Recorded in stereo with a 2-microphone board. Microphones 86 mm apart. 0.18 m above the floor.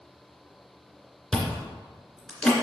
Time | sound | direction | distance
1.3 | chewing | 5° left (ahead or behind) | 2.5 m